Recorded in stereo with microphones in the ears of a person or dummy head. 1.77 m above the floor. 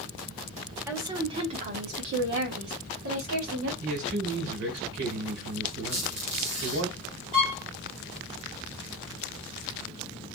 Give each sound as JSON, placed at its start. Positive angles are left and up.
{"t": 0.9, "sound": "a woman speaking", "side_deg": -15, "distance_m": 0.9}
{"t": 3.8, "sound": "a man speaking", "side_deg": -80, "distance_m": 1.6}
{"t": 5.9, "sound": "a squeak", "side_deg": -45, "distance_m": 1.0}
{"t": 7.3, "sound": "a violin", "side_deg": -40, "distance_m": 1.8}